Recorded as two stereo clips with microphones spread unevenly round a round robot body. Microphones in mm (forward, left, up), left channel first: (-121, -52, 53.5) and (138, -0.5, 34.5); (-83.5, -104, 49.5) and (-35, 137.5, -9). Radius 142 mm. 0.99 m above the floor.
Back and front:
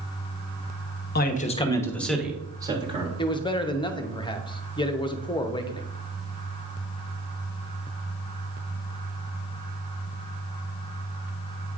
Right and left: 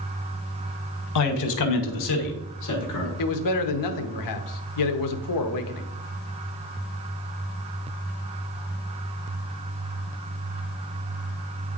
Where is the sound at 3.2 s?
95° right, 0.8 m.